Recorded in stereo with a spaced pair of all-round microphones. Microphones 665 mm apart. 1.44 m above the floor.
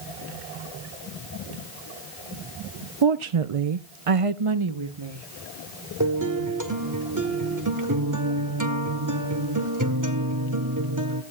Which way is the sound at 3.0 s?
40° right (ahead or behind).